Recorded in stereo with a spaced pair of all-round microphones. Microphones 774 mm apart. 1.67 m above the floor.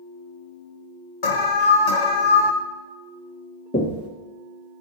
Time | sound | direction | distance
1.2 | an alarm | 85° left | 1.3 m
3.7 | knocking | 15° left (ahead or behind) | 1.4 m